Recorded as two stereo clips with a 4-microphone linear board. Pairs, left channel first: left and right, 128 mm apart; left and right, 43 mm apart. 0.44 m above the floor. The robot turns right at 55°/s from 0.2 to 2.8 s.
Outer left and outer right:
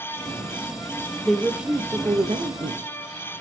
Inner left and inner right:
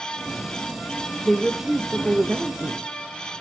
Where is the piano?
I don't hear a piano.